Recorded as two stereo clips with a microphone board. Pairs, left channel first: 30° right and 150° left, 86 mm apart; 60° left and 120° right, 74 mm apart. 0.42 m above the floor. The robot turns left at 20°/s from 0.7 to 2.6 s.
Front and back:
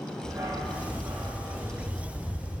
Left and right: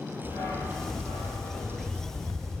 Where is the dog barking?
105° left, 3 m; by 2.6 s 70° left, 3 m.